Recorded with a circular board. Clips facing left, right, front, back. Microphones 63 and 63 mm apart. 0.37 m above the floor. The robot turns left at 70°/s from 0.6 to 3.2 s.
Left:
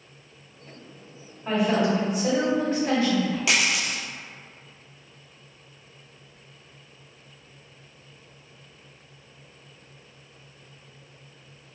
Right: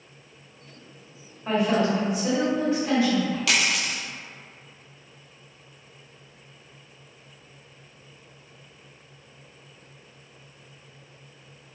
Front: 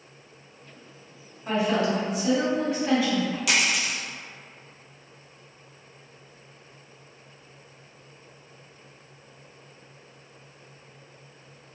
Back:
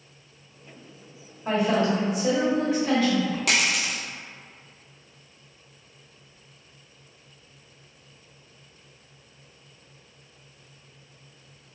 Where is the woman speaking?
Straight behind, 1.1 m; by 3.4 s 60° left, 1.1 m.